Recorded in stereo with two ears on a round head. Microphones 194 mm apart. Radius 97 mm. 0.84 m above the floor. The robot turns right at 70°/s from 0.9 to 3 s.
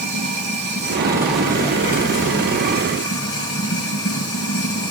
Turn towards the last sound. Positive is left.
turn(degrees=115)